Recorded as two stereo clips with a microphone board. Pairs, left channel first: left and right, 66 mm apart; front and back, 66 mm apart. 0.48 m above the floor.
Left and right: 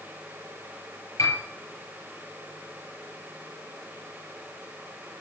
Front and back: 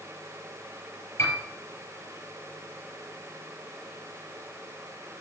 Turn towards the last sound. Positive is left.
turn(degrees=45)